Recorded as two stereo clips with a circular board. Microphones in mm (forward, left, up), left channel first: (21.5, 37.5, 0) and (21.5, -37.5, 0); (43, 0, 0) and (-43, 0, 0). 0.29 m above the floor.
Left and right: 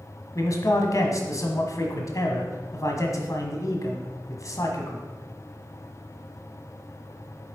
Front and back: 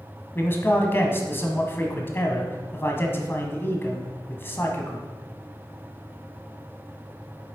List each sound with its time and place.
0.3 s a man speaking: 60° left, 1.7 m